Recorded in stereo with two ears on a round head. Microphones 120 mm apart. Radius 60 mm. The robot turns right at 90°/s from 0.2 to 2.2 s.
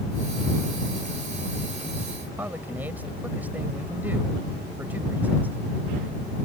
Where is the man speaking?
15° right (ahead or behind).